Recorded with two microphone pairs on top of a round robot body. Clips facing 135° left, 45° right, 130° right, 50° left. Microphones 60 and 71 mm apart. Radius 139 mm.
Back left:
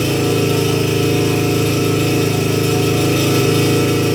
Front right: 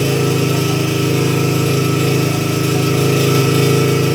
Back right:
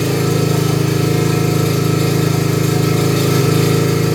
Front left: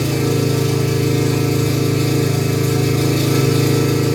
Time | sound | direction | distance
0.0 | an engine running | 110° right | 5.5 m